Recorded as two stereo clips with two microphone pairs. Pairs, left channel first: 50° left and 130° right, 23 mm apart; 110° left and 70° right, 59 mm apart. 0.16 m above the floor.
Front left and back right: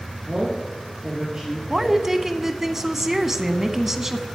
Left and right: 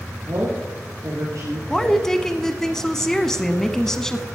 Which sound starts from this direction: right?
A woman speaking, at 0.3 s.